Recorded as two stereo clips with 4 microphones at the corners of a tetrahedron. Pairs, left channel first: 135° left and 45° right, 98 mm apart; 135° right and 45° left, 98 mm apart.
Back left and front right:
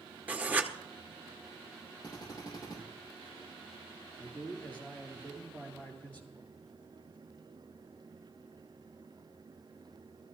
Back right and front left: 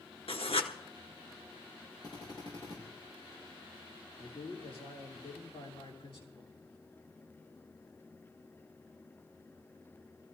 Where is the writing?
120° right, 1.2 m.